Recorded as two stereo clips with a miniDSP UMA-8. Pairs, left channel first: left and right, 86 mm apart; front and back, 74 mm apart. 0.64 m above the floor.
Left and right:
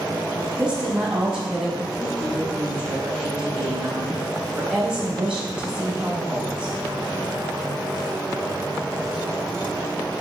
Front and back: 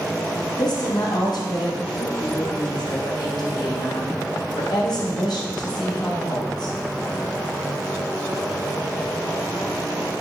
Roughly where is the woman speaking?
Ahead.